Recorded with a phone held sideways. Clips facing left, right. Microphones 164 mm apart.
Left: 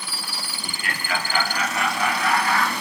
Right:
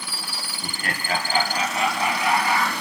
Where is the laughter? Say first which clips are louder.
Right 3 dB; 50° right (ahead or behind), 1.7 m; by 2.7 s 15° right (ahead or behind), 3 m.